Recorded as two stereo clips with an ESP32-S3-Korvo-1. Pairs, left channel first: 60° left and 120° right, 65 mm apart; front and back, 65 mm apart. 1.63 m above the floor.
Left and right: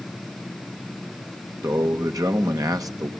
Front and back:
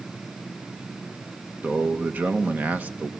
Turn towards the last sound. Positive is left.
turn(degrees=-115)